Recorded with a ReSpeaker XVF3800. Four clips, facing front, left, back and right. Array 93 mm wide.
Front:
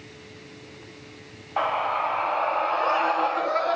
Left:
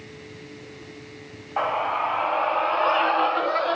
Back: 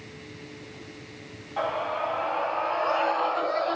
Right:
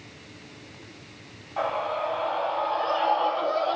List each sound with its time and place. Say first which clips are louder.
1.6 s a scream: left 3 dB, front 4 dB; 40° left, 2 m; by 3.8 s 75° left, 3 m